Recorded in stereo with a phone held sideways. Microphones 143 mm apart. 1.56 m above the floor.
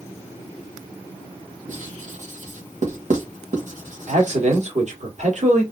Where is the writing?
60° right (ahead or behind), 1.4 m.